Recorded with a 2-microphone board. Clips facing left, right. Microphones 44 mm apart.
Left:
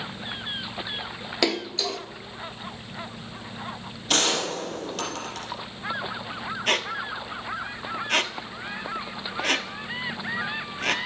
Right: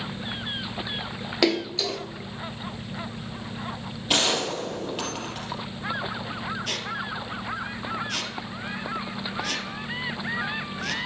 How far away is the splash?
About 0.6 m.